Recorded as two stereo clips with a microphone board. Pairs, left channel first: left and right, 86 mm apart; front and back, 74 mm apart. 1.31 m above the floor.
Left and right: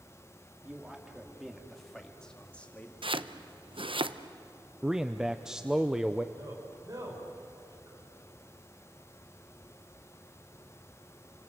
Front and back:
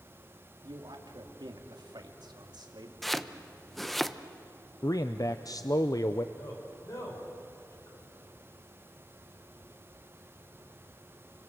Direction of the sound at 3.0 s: 90° right.